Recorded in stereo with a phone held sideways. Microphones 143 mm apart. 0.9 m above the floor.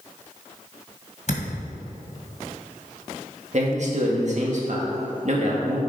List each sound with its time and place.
1.3 s a thud: 55° left (ahead or behind), 2 m
3.5 s a man speaking: 55° right (ahead or behind), 1.7 m